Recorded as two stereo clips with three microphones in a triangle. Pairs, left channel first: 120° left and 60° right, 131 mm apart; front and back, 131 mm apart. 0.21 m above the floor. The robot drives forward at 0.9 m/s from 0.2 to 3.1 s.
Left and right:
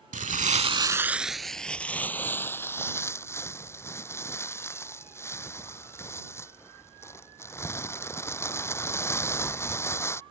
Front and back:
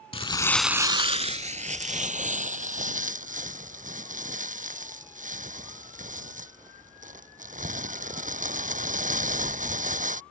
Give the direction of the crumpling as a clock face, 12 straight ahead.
2 o'clock.